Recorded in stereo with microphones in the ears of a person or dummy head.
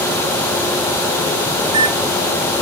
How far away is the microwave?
About 1.0 m.